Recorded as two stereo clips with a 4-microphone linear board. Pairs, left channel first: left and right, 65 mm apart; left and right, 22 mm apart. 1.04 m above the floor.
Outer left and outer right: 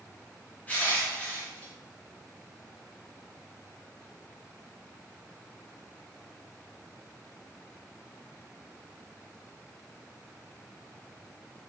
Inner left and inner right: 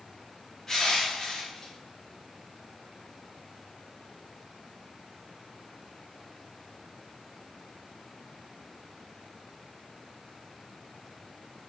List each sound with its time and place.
0.7 s crushing: 25° left (ahead or behind), 0.7 m